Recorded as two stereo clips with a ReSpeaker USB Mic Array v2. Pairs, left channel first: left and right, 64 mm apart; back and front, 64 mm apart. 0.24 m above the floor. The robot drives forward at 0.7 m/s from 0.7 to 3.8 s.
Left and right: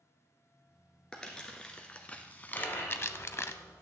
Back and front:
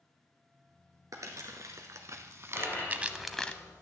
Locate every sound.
1.1 s crumpling: 15° left, 1.6 m; by 3.5 s 120° left, 0.5 m
2.5 s a dropped coin: 125° left, 5 m; by 3.8 s 135° left, 5.5 m